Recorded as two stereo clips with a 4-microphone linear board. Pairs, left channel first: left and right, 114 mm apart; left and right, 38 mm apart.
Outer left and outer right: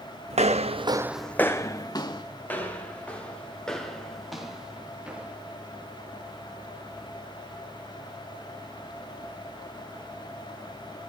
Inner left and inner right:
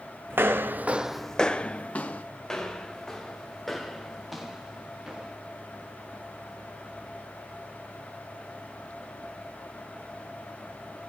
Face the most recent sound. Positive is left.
turn(degrees=-10)  # may be behind; listen again after turning